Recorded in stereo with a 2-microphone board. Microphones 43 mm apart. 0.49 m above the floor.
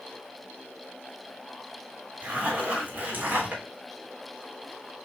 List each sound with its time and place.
2.2 s a zipper: 40° right (ahead or behind), 1.4 m